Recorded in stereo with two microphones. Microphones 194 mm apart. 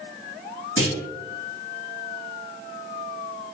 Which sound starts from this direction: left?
A clunk, at 0.8 s.